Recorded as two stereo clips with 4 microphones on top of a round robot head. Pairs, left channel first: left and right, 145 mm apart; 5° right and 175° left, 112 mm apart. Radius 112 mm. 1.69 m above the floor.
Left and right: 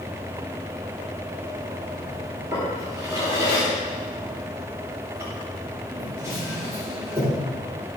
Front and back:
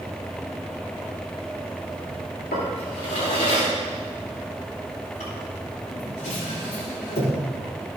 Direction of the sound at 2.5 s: 15° right.